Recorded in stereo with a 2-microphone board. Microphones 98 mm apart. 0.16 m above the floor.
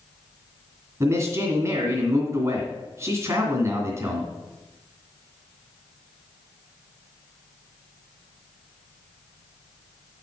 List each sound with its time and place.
1.0 s a man speaking: 30° right (ahead or behind), 2.0 m